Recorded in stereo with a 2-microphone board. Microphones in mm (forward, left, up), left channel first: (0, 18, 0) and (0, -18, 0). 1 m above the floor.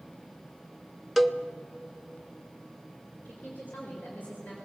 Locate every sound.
1.2 s a cowbell: centre (ahead or behind), 0.8 m
3.2 s a woman speaking: 50° left (ahead or behind), 4 m